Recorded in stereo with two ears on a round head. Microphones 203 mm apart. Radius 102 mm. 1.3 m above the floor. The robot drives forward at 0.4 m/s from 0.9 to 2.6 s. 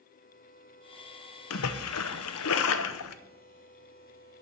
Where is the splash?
65° left (ahead or behind), 0.7 m.